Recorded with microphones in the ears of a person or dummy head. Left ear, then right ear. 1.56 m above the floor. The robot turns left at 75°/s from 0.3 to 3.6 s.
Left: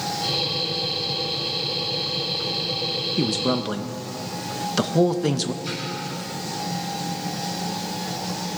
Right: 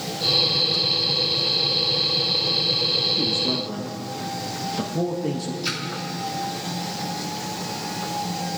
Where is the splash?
65° right (ahead or behind), 2 m.